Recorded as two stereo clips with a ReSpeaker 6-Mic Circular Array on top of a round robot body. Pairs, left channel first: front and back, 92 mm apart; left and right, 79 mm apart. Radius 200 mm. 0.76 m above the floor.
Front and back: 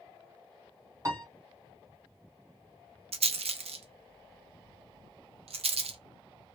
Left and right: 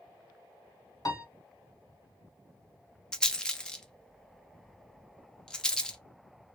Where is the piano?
125° left, 1.5 m.